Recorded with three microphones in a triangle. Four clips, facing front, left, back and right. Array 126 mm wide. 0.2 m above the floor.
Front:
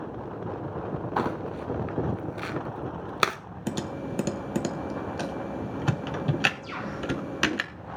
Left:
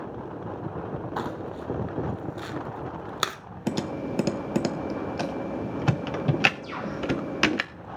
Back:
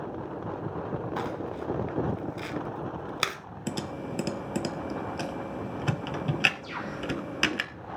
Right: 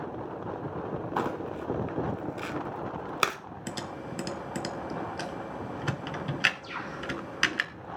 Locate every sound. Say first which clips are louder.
1.2 s crumpling: right 3 dB, front 4 dB; 20° right, 0.8 m
3.7 s typing on a keyboard: left 9 dB, front 2 dB; 85° left, 0.7 m
6.6 s a bird: left 5 dB, front 1 dB; 55° left, 8 m